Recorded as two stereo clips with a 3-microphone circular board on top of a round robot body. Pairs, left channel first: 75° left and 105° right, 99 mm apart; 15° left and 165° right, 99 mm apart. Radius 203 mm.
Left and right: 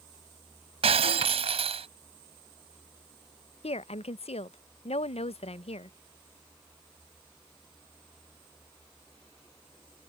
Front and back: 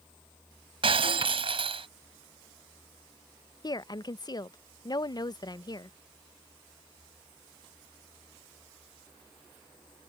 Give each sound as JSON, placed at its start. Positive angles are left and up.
{"t": 0.8, "sound": "breaking glass", "azimuth_deg": -130}
{"t": 3.6, "sound": "a woman speaking", "azimuth_deg": 65}